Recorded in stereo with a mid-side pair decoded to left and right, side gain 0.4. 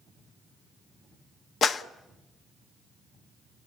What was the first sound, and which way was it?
A clap, 65° left.